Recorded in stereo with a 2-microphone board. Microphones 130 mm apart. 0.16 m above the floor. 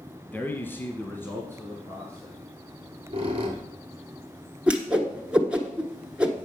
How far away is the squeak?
About 1.8 m.